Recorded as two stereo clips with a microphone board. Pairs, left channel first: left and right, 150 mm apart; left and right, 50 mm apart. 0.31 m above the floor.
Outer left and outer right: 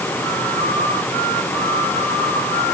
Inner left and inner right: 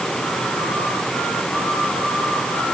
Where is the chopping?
I don't hear chopping.